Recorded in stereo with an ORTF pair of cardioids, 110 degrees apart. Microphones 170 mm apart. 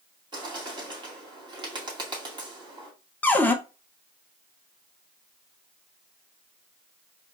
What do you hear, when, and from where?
0.3 s a bird: 30° right, 2.5 m
3.2 s a cupboard door: 10° left, 0.7 m